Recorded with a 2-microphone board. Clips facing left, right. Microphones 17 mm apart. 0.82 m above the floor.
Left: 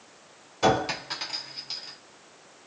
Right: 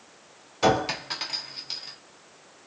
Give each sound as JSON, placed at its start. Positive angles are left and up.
{"t": 0.6, "sound": "a clink", "side_deg": -15, "distance_m": 0.9}